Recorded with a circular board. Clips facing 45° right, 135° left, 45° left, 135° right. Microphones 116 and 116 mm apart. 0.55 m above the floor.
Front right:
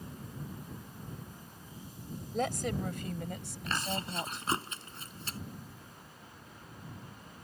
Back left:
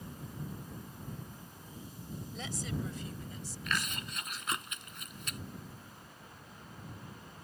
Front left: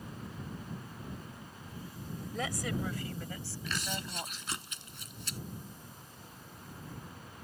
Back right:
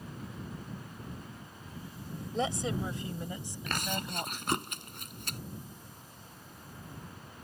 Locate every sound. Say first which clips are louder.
2.3 s a woman speaking: front right 8 dB, back right 4 dB; 75° right; by 4.5 s 60° right
3.7 s chewing: front right 3 dB, back right 4 dB; 105° right